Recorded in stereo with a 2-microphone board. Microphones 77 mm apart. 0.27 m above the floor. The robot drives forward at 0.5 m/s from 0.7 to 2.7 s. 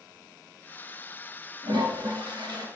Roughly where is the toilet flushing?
Right.